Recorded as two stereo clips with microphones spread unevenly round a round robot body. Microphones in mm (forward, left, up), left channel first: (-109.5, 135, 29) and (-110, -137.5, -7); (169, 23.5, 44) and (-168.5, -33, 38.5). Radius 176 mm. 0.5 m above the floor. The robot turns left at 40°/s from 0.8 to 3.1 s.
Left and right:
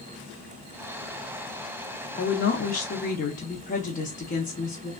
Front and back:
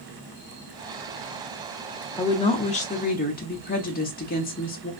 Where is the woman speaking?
80° left, 0.7 m; by 4.9 s 45° left, 0.7 m.